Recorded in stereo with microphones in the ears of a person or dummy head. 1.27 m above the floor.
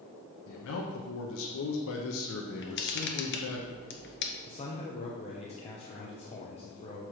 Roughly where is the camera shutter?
Left.